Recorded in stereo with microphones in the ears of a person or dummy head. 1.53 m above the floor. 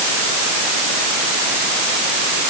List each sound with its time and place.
Only background noise.